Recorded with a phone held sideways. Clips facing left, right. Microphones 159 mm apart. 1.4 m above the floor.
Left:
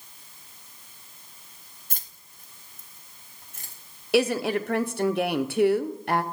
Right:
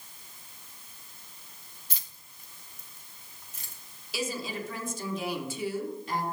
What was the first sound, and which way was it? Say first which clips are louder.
Keys jangling: left 3 dB; 50° left (ahead or behind).